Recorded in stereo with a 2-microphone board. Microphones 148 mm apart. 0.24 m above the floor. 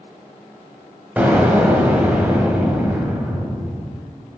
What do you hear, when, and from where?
1.2 s an explosion: 10° right (ahead or behind), 1.3 m